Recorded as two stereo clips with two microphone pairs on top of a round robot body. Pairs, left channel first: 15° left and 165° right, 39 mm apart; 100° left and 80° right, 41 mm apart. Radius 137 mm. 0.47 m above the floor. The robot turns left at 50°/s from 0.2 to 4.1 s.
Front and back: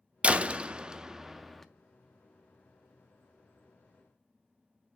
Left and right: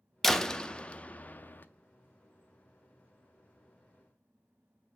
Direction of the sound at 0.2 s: 175° right.